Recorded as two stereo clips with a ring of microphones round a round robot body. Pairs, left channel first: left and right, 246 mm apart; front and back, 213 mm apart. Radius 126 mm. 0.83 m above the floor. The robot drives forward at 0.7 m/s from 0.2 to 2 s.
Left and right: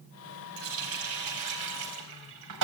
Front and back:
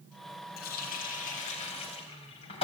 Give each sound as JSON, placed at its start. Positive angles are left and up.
{"t": 0.6, "sound": "a running tap", "azimuth_deg": -55, "distance_m": 4.0}